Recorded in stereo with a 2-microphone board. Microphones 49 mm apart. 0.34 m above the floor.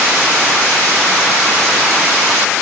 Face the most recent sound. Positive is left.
No sound to turn to.